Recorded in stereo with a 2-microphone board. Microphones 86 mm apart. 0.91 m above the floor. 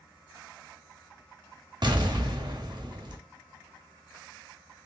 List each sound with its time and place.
1.8 s an explosion: 55° right (ahead or behind), 0.7 m